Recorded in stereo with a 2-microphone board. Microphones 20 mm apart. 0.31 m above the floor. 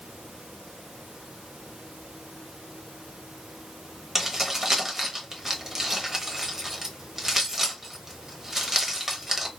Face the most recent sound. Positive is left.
turn(degrees=-20)  # may be behind; listen again after turning